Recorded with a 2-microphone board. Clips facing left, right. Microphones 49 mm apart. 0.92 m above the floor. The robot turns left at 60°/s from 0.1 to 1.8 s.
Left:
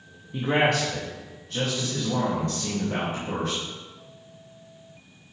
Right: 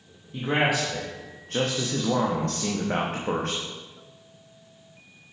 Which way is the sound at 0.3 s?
15° left.